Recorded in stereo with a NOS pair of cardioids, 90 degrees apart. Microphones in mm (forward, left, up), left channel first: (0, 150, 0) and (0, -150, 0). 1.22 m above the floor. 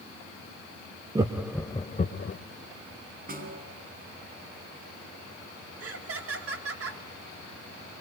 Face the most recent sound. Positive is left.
turn(degrees=-50)